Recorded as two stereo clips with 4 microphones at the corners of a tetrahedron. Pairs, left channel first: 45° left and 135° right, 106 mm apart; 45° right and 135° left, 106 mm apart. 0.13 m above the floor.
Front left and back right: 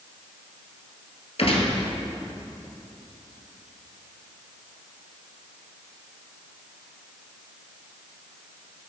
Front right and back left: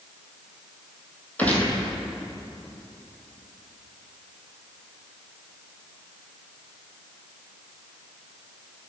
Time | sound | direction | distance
1.4 | a gunshot | 30° left | 1.4 m